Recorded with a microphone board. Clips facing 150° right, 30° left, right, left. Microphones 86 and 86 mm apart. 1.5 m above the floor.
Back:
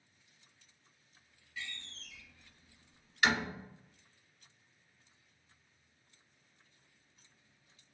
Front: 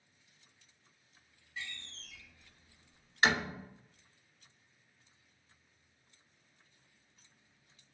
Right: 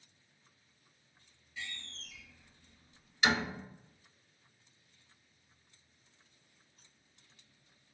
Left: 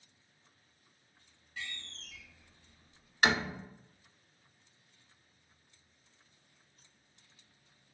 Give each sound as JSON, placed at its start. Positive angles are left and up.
{"t": 1.6, "sound": "a door slam", "azimuth_deg": 80, "distance_m": 1.2}